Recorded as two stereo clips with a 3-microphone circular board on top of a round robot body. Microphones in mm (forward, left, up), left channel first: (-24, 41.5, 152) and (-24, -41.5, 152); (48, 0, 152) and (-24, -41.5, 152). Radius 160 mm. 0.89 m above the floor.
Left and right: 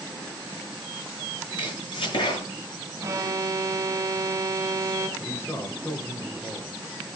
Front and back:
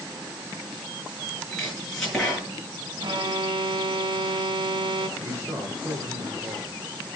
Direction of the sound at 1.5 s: 120° left.